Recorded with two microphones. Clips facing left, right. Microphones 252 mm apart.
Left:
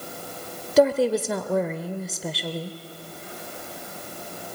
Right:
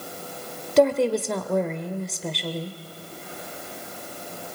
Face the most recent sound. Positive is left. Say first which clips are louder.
# even
turn(degrees=5)  # may be behind; listen again after turning